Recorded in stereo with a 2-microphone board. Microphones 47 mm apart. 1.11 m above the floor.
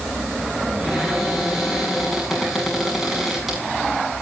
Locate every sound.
0.8 s a cupboard door: centre (ahead or behind), 8 m